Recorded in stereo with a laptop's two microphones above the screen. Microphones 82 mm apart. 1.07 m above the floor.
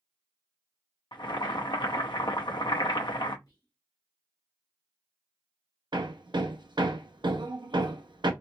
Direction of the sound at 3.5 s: 60° left (ahead or behind).